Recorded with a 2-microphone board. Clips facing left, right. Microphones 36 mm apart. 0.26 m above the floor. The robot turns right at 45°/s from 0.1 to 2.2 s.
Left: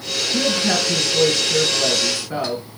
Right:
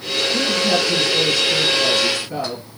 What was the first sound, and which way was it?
A woman speaking, 55° left.